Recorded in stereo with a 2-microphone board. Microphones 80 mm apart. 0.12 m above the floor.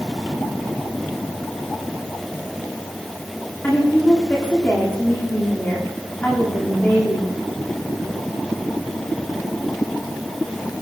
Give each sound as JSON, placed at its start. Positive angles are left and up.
{"t": 3.6, "sound": "a woman speaking", "side_deg": 20, "distance_m": 10.0}